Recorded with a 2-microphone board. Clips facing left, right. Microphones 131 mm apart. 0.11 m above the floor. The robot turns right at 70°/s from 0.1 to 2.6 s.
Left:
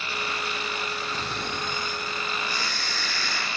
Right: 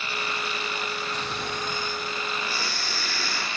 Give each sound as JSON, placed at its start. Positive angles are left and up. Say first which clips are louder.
{"t": 1.1, "sound": "snoring", "louder": "even", "azimuth_deg": 90, "distance_m": 1.8}